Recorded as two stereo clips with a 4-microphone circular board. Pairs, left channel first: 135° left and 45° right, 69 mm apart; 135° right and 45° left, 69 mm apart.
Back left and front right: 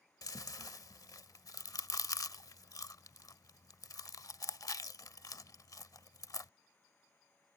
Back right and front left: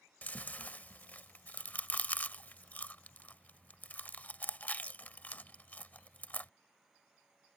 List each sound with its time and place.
0.2 s chewing: 160° left